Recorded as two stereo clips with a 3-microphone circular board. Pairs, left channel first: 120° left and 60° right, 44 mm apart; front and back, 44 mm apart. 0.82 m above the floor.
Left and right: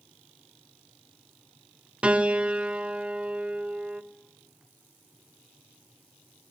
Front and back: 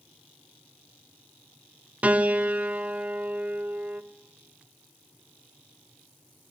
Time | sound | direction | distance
2.0 | a piano | 125° right | 0.7 m